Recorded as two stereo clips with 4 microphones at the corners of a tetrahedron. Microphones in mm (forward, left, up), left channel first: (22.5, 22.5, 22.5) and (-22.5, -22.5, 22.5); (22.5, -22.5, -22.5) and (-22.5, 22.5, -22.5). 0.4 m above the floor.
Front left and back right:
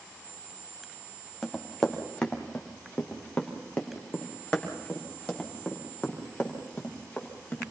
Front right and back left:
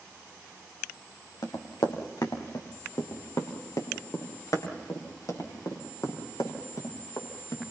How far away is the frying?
No frying in this recording.